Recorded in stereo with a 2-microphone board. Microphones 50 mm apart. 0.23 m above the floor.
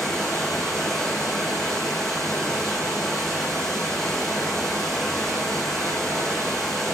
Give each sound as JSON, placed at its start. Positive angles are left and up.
{"t": 0.0, "sound": "running water", "side_deg": 5, "distance_m": 1.0}